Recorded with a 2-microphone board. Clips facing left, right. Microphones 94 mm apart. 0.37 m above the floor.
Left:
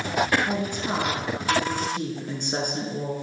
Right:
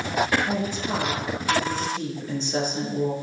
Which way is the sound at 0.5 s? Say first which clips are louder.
Even; 60° left (ahead or behind).